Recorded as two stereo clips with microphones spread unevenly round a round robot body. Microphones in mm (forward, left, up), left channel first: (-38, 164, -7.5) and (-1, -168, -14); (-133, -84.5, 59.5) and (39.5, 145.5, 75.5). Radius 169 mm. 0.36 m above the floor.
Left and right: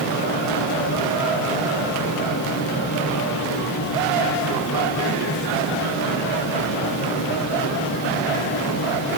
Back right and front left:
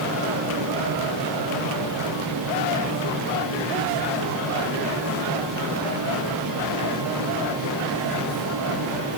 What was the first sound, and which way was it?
Only background noise.